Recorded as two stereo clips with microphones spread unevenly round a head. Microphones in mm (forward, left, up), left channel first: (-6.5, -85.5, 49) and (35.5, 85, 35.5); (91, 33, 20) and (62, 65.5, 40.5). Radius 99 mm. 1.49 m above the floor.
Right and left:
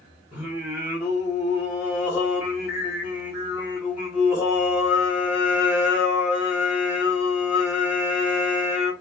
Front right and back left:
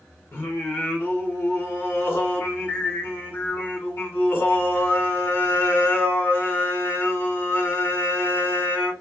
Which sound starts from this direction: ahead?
Singing, at 0.3 s.